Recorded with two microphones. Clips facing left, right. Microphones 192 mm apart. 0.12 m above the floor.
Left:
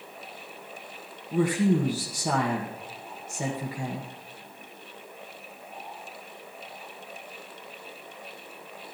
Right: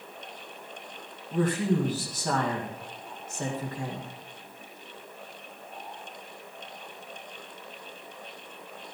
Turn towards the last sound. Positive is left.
turn(degrees=10)  # may be behind; listen again after turning